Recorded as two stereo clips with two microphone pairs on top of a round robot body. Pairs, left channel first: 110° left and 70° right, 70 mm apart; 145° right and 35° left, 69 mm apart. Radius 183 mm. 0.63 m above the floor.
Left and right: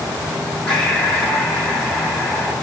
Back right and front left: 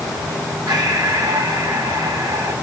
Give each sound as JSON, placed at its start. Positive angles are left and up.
{"t": 0.7, "sound": "breathing", "azimuth_deg": 35, "distance_m": 6.5}